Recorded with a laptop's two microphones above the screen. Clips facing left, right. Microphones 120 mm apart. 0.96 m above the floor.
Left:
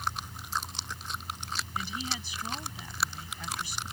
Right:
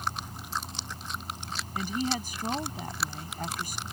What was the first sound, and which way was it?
A machine running, 45° right (ahead or behind).